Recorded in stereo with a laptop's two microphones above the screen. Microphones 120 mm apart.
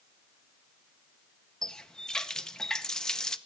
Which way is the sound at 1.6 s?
5° left (ahead or behind).